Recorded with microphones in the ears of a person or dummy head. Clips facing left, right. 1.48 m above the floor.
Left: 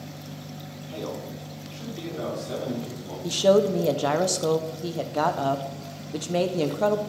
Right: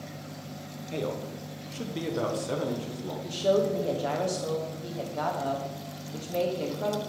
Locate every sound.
0.9 s a man speaking: 30° right (ahead or behind), 0.7 m; by 3.1 s 65° right (ahead or behind), 1.9 m
3.2 s a woman speaking: 70° left (ahead or behind), 0.7 m